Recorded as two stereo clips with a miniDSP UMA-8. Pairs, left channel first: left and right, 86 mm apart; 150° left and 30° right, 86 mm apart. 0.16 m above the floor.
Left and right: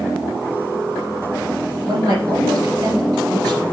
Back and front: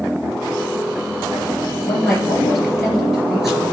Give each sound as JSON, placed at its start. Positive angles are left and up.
{"t": 1.9, "sound": "a woman speaking", "azimuth_deg": -115, "distance_m": 3.0}